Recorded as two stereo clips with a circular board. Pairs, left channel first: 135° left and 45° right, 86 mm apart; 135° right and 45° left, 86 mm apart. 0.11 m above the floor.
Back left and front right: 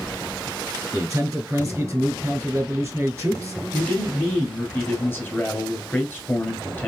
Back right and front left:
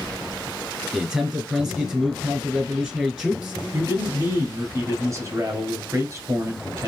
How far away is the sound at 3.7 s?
About 1.6 m.